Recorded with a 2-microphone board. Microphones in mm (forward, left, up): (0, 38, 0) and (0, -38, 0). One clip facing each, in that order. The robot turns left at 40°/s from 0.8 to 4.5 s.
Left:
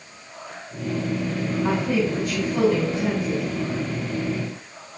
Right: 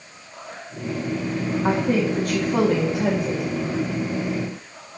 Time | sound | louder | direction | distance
1.6 | a woman speaking | right 2 dB | 25° right | 1.4 m